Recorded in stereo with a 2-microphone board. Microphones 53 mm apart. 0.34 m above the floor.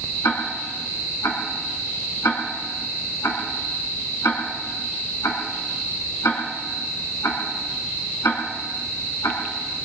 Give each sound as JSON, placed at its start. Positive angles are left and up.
{"t": 0.2, "sound": "ticking", "side_deg": 70, "distance_m": 2.5}